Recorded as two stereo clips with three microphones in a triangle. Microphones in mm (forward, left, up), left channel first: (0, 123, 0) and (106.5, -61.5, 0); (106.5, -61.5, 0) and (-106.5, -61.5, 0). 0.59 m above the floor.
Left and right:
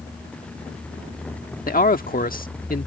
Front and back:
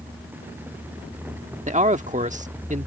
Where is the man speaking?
145° left.